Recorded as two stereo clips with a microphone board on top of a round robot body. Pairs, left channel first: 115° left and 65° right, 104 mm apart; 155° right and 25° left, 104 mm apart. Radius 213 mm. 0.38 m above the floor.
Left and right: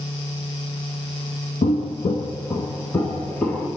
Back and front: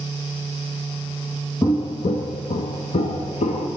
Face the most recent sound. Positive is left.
turn(degrees=-170)